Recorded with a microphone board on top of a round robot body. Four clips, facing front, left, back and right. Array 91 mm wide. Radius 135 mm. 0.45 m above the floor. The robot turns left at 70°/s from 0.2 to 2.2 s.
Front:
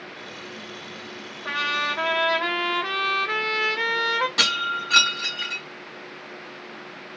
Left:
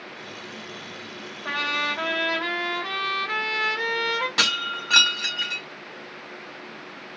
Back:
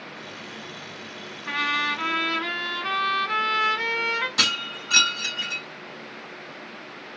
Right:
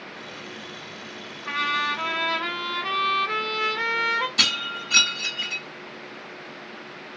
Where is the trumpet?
55° left, 1.0 m; by 4.3 s 5° left, 1.0 m.